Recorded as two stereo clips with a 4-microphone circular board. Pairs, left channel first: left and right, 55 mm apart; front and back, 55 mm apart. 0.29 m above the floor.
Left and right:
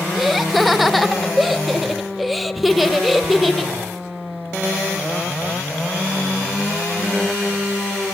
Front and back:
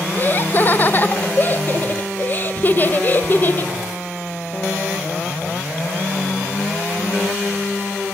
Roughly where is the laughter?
Ahead.